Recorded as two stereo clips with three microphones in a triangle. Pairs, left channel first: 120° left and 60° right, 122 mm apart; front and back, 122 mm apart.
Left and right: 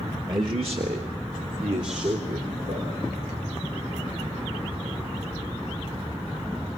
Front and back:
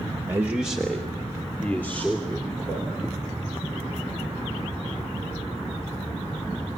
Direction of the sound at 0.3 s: 115° right.